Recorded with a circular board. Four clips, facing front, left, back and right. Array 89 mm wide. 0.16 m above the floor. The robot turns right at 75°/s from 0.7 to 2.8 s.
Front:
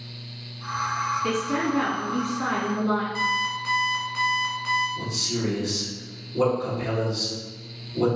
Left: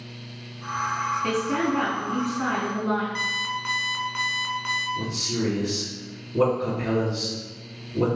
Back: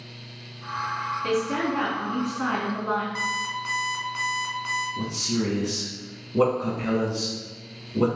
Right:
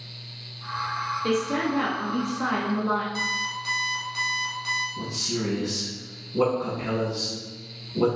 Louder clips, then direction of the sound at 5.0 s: Left 2 dB, back 2 dB; straight behind.